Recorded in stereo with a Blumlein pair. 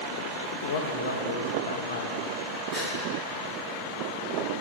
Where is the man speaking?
60° left, 1.0 m.